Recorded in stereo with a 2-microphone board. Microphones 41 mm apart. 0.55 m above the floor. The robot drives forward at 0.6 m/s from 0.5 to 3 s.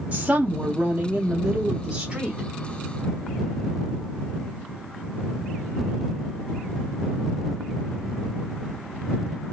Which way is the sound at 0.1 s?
35° right (ahead or behind).